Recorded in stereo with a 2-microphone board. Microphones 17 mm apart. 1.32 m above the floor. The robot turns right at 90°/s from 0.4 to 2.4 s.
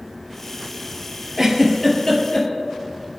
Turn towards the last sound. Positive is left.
turn(degrees=60)  # may be behind; listen again after turning